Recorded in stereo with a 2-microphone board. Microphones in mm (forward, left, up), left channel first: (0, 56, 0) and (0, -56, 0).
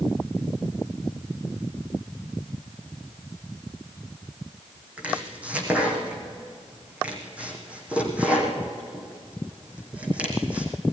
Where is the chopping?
10° right (ahead or behind), 4 m.